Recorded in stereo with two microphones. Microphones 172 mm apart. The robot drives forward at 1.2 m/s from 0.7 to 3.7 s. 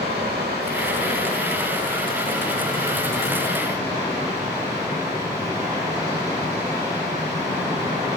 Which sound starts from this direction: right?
Running water, at 0.0 s.